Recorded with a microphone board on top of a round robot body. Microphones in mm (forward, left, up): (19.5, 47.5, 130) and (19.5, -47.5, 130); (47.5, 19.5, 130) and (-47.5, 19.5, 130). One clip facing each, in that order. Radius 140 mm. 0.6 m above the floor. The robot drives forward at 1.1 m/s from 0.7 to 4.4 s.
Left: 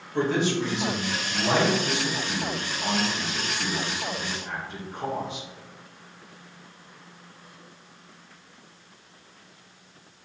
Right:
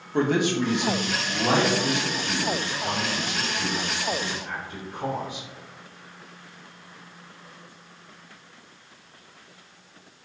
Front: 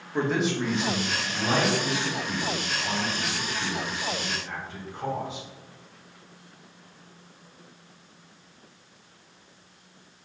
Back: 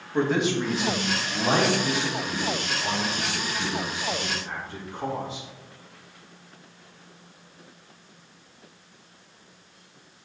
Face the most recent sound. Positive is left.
turn(degrees=-165)